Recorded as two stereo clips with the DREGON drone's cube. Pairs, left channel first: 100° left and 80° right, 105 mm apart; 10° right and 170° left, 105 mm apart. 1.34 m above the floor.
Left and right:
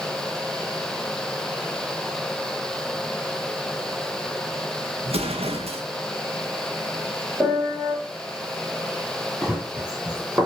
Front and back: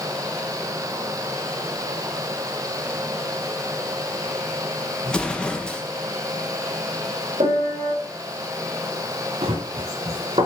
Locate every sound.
5.0 s an explosion: 90° right, 1.7 m
7.4 s a piano: 160° right, 6.5 m
9.4 s running footsteps: 165° right, 6 m; by 10.5 s 155° right, 7 m